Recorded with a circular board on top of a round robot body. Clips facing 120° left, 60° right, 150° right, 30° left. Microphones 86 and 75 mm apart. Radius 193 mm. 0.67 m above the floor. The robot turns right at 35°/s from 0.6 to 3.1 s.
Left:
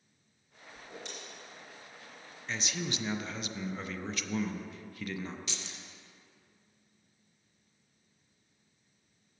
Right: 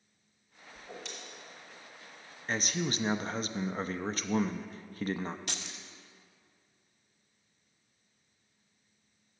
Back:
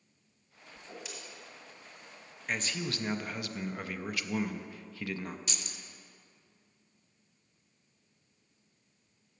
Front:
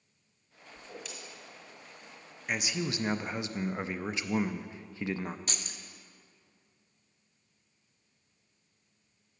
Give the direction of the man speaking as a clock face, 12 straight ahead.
2 o'clock.